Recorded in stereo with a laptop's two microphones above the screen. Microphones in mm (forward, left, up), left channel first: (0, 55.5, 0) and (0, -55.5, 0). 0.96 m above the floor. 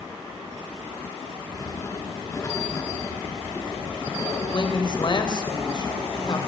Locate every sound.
1.5 s writing: 30° left (ahead or behind), 6.5 m
4.5 s a man speaking: 45° left (ahead or behind), 3.5 m